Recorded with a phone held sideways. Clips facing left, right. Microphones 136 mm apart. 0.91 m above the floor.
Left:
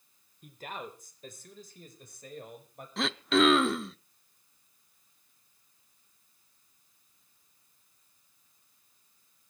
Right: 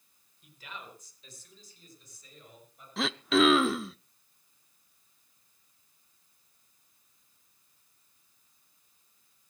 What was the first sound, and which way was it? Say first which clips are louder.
A man speaking: left 6 dB; 50° left (ahead or behind).